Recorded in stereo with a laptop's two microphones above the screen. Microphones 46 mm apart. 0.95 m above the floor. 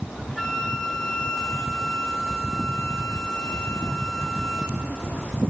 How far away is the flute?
About 1.8 m.